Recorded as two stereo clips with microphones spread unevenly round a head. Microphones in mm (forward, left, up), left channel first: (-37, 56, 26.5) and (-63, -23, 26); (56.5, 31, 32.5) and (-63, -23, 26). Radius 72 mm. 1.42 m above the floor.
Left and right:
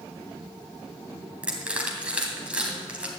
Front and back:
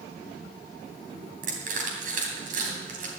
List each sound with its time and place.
1.4 s crushing: 175° left, 3 m